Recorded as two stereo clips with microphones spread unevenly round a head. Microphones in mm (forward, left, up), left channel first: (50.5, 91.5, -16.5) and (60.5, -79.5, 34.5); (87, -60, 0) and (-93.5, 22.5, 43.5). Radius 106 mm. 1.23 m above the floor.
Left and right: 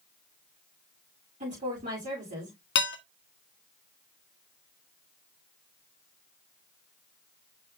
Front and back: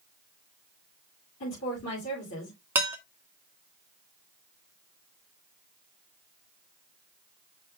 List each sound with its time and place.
1.4 s a woman speaking: 45° right, 7.5 m
2.8 s dishes clattering: 80° left, 1.4 m